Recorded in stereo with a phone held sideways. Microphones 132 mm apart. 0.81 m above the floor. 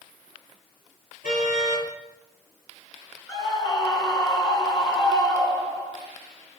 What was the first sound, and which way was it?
A car horn, 80° left.